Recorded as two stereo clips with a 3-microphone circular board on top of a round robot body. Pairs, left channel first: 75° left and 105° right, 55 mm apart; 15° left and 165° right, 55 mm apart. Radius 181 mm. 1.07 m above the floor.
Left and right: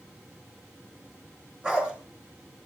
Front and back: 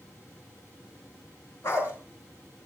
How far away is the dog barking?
About 6.5 m.